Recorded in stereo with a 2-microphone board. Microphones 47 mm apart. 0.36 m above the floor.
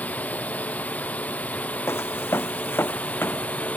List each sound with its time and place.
0.0 s a drone: 30° left (ahead or behind)
1.9 s footsteps: 65° left (ahead or behind); by 3.7 s 50° left (ahead or behind)